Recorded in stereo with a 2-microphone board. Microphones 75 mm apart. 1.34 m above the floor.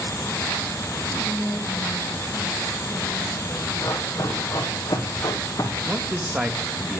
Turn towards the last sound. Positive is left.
turn(degrees=-5)  # may be behind; listen again after turning